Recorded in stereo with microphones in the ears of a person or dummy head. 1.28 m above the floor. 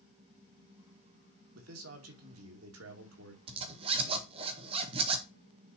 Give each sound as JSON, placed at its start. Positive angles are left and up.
{"t": 1.6, "sound": "a man speaking", "side_deg": -75, "distance_m": 2.5}
{"t": 3.5, "sound": "a zipper", "side_deg": -30, "distance_m": 1.9}